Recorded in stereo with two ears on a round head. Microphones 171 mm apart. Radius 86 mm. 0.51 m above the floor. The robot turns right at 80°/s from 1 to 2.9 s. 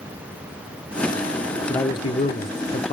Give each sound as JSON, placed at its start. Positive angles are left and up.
{"t": 1.7, "sound": "a man speaking", "azimuth_deg": 25, "distance_m": 0.8}